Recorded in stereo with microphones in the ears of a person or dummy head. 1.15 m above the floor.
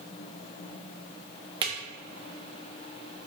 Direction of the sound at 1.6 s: 25° right (ahead or behind).